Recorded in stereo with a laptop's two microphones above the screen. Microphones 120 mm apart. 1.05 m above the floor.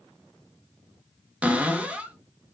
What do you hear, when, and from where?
1.4 s a cupboard door: 10° right (ahead or behind), 0.9 m